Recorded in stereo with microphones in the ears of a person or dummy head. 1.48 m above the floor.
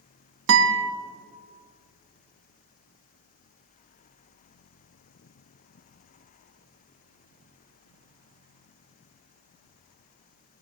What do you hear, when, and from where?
0.5 s a guitar: 70° right (ahead or behind), 1.3 m